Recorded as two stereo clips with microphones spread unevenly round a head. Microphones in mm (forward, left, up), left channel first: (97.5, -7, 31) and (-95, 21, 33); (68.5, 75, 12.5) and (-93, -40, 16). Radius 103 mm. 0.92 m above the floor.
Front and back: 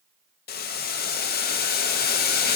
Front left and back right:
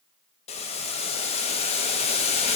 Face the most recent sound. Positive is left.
turn(degrees=-10)